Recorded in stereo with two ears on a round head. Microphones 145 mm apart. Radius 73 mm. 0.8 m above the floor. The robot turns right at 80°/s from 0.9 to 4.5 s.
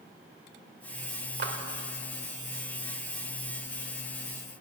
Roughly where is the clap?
Right.